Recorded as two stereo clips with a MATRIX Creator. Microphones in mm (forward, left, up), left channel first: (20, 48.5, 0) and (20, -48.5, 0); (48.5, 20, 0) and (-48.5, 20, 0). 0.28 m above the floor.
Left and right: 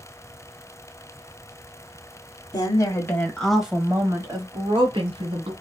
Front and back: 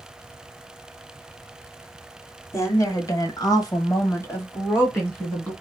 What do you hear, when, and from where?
2.5 s a woman speaking: 55° left, 1.6 m; by 5.5 s 70° right, 2.5 m